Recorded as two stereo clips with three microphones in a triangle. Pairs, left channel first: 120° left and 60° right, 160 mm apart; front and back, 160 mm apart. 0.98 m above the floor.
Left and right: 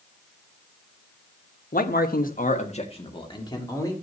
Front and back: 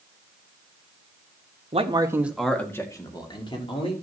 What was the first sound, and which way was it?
A man speaking, 135° left.